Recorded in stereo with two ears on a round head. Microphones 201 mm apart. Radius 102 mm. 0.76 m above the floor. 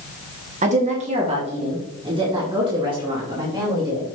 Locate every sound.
0.6 s a woman speaking: 30° right (ahead or behind), 1.3 m; by 4.1 s 15° right (ahead or behind), 3 m